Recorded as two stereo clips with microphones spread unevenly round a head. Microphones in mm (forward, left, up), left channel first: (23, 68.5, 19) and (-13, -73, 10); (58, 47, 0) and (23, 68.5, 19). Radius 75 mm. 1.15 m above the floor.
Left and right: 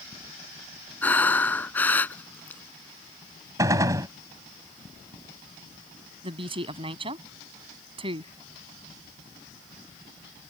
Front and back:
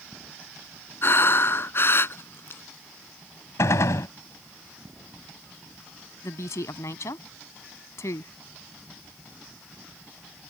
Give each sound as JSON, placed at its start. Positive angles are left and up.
{"t": 1.0, "sound": "breathing", "azimuth_deg": -5}
{"t": 3.6, "sound": "a gunshot", "azimuth_deg": -35}
{"t": 6.2, "sound": "a woman speaking", "azimuth_deg": -50}